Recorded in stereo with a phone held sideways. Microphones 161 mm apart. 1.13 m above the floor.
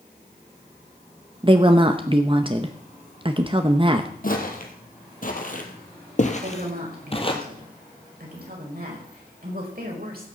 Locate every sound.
1.4 s a woman speaking: 35° right (ahead or behind), 0.8 m
4.2 s footsteps: 60° left (ahead or behind), 2.5 m; by 7.4 s 30° left (ahead or behind), 2 m
6.4 s a woman speaking: 70° right (ahead or behind), 5 m